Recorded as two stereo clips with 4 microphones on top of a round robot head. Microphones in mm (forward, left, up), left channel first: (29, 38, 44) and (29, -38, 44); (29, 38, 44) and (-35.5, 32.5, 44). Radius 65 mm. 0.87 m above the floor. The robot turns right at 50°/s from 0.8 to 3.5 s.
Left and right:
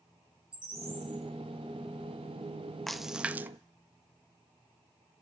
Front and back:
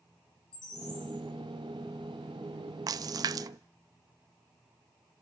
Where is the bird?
15° right, 7.5 m; by 1.2 s 10° left, 7.5 m.